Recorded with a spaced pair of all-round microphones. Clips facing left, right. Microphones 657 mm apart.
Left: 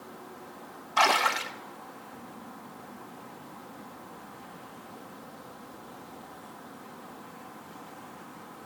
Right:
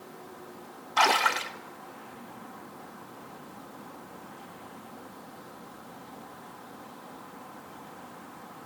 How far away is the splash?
About 1.3 m.